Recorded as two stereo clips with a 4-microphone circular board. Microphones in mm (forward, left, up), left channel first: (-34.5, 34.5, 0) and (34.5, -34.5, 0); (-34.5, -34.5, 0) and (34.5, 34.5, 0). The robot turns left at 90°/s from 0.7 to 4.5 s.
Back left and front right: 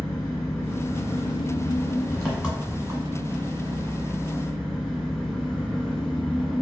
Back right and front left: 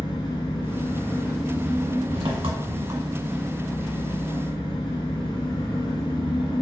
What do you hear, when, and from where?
0.0 s an engine running: 160° right, 1.1 m; by 6.6 s 145° right, 1.1 m